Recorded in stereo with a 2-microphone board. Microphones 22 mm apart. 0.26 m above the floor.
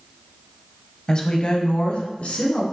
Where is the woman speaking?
30° left (ahead or behind), 1.1 m; by 2.6 s 60° left (ahead or behind), 2.5 m.